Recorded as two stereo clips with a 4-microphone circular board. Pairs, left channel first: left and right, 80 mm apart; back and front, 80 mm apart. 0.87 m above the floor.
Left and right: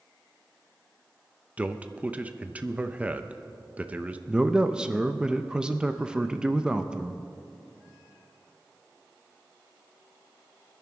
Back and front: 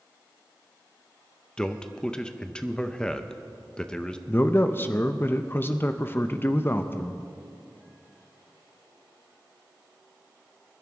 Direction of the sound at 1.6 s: 120° right.